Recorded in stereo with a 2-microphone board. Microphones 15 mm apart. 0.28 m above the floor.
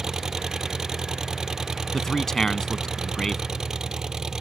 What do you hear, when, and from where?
0.0 s an engine running: 35° right (ahead or behind)
1.9 s a man speaking: 30° left (ahead or behind)